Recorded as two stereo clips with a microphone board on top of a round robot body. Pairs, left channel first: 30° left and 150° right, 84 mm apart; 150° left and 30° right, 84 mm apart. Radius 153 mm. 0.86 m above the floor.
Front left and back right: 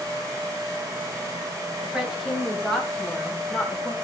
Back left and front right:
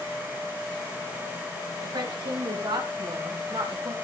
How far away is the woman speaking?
About 5.5 m.